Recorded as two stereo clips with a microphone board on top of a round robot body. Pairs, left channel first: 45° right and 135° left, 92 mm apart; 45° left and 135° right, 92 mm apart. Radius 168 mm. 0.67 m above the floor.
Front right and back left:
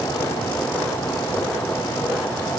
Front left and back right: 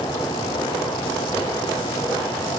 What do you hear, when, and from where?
Only background noise.